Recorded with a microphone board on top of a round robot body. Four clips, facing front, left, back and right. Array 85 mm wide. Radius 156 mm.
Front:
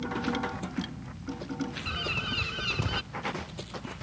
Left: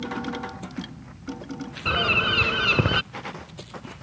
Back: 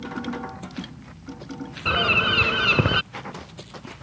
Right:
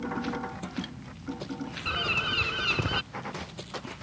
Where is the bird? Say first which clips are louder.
Left 8 dB, back 12 dB; 150° left.